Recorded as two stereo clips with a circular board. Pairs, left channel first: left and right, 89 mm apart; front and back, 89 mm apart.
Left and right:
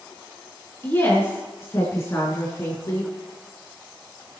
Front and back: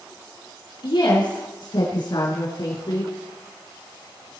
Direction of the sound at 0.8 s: 25° left.